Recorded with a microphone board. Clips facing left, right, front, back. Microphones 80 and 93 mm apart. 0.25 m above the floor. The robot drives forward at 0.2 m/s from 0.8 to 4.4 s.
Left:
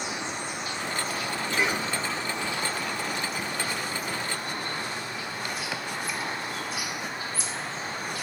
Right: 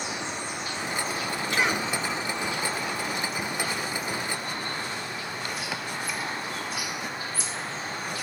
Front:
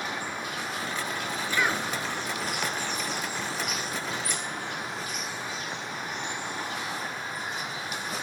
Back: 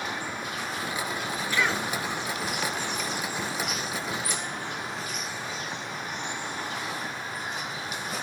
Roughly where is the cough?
Right.